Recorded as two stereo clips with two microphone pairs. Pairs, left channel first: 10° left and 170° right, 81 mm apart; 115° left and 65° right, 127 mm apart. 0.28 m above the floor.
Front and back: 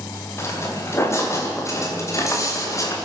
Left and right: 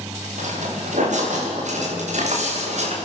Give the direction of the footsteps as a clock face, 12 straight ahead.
2 o'clock.